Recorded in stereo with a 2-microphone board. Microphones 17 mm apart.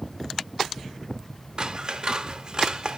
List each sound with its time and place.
1.6 s scissors: 45° right (ahead or behind), 0.6 m